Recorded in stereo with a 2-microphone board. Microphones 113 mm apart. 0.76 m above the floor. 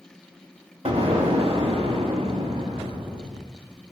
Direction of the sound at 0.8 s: 65° right (ahead or behind).